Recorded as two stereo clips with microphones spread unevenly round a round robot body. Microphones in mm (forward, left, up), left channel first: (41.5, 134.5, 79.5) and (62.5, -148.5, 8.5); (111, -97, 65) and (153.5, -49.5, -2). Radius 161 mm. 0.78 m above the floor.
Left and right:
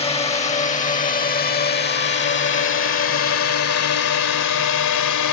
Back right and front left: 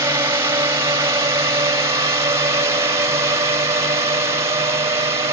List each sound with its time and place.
0.0 s a drone: 20° left; by 5.3 s 70° left